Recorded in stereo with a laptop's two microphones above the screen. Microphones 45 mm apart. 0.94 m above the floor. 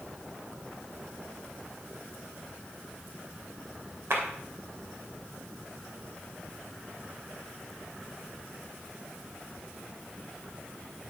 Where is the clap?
65° right (ahead or behind), 2.5 m.